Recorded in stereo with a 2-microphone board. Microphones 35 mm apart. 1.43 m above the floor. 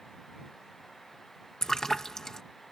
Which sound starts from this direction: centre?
A splash, at 1.6 s.